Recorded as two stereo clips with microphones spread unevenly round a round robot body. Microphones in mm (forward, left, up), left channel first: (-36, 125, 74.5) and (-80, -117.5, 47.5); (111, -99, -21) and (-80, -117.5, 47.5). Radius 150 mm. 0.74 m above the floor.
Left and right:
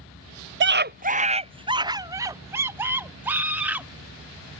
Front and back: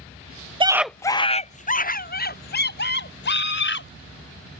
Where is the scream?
95° right; by 3.9 s 15° right.